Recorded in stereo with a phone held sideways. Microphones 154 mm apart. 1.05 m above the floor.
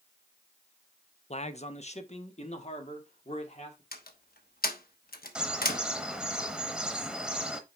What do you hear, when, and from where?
1.3 s a man speaking: 45° left (ahead or behind), 0.7 m
3.9 s a door slam: 80° left, 1.0 m
5.3 s a bird: 5° right (ahead or behind), 0.9 m